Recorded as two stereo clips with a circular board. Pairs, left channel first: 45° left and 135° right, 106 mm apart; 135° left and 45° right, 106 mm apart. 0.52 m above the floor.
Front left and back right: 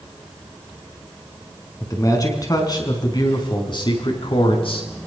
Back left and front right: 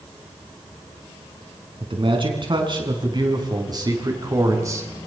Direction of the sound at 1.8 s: 10° right.